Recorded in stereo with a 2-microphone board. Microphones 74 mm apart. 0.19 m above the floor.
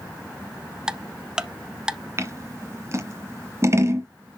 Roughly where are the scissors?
Right.